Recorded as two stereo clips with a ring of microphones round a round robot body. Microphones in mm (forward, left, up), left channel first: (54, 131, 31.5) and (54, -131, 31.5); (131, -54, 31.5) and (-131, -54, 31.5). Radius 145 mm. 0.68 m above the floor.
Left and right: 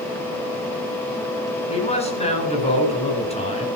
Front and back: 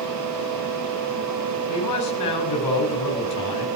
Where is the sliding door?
I don't hear a sliding door.